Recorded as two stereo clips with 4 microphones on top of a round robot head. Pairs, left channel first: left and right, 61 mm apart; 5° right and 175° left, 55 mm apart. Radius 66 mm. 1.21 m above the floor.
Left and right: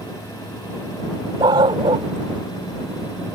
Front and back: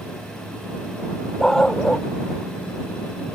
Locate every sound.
1.4 s a dog barking: 85° right